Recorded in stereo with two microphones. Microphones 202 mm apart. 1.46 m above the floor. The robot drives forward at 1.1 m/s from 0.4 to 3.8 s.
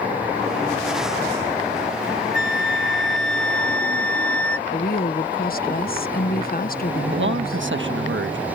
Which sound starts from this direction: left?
A woman speaking, at 4.7 s.